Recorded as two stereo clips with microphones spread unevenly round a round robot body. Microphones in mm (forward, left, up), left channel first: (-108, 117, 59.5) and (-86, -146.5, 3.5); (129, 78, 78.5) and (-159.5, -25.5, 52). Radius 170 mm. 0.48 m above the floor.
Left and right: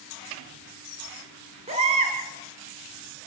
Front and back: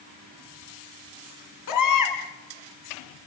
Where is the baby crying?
10° right, 2.5 m.